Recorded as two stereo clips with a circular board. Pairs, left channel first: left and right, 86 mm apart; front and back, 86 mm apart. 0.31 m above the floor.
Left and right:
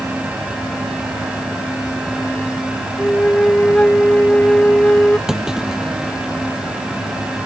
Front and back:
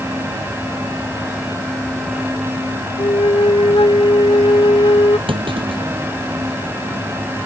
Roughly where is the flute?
Ahead.